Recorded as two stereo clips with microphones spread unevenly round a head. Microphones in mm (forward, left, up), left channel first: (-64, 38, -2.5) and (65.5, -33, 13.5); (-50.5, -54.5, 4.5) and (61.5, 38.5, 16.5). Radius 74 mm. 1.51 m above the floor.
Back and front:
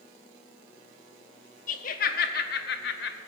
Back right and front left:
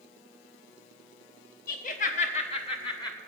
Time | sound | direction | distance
1.7 | laughter | 170° right | 1.3 m